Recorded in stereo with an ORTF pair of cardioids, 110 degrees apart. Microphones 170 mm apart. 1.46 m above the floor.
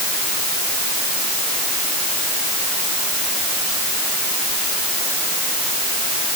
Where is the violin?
No violin in this recording.